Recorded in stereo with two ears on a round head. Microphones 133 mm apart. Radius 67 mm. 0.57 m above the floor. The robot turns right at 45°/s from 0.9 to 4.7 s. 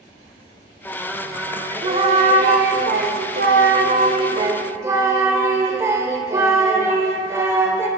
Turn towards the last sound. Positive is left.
turn(degrees=-20)